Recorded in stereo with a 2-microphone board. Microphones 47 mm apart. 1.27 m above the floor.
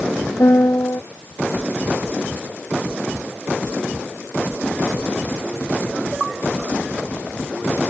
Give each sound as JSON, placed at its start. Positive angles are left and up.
{"t": 0.4, "sound": "a piano", "side_deg": 80}